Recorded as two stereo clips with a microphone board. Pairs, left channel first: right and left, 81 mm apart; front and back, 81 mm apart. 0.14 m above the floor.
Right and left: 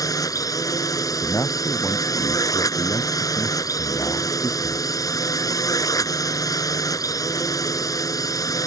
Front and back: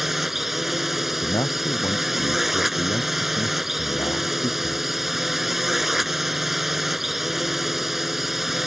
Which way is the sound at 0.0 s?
95° right.